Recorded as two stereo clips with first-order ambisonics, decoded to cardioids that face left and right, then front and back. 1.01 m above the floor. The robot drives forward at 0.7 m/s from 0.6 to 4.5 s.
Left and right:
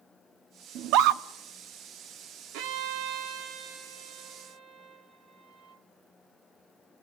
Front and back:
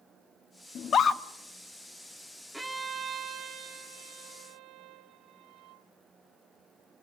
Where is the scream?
55° right, 1.0 m; by 1.2 s 75° right, 0.8 m.